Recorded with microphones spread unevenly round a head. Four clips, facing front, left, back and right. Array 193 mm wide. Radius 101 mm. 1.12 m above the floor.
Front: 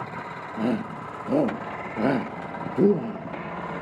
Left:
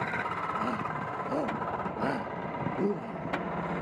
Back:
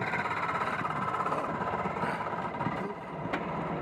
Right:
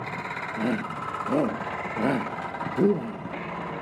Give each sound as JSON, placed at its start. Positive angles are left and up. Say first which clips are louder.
{"t": 0.6, "sound": "a shout", "louder": "right 4 dB, front 5 dB", "azimuth_deg": -30}